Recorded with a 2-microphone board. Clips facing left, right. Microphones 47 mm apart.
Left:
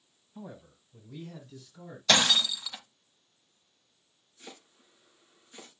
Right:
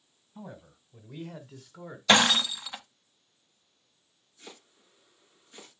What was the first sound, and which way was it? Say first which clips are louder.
A man speaking: even; 10° right (ahead or behind).